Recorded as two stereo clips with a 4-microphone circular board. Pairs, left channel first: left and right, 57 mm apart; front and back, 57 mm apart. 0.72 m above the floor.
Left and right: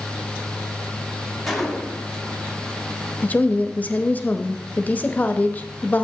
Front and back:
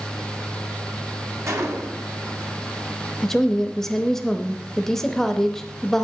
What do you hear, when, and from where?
1.5 s a gunshot: 175° left, 1.3 m
3.2 s a woman speaking: 75° left, 0.7 m